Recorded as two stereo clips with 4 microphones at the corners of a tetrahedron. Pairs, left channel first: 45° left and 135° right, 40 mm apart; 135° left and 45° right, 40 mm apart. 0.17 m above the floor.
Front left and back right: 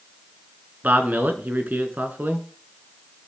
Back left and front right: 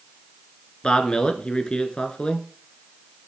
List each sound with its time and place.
0.8 s a man speaking: 165° right, 2.5 m